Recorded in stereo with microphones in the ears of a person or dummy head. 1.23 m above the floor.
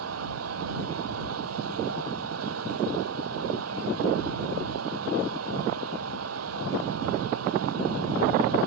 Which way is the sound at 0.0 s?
85° right.